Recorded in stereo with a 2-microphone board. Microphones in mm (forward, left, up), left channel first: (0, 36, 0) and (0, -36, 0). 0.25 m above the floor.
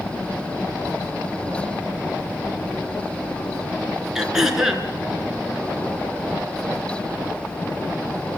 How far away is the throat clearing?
About 4 m.